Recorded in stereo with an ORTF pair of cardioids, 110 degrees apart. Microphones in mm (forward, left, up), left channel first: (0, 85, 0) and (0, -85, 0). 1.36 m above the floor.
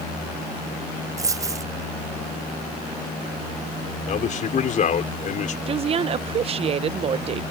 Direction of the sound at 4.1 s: 50° left.